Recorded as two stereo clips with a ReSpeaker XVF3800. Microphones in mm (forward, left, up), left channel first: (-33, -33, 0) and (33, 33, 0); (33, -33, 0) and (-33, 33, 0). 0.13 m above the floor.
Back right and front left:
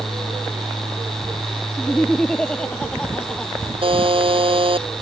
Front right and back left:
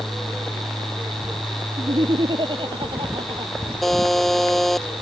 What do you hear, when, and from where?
1.8 s laughter: 145° left
3.8 s a buzzer: 45° left